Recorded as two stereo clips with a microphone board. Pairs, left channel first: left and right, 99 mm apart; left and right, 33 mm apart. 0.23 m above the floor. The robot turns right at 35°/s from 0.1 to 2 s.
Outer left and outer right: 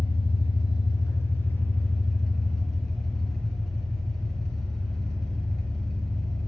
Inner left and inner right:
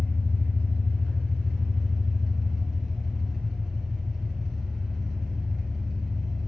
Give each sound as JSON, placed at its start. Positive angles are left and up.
{"t": 0.0, "sound": "an engine running", "azimuth_deg": 110, "distance_m": 0.7}